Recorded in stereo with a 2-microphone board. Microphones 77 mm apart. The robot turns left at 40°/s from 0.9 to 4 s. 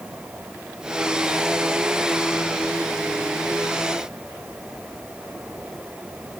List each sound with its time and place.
Only background noise.